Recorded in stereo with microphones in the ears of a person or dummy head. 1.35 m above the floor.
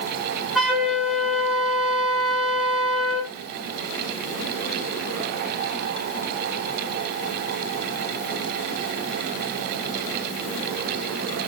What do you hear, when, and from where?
0.6 s a flute: centre (ahead or behind), 2 m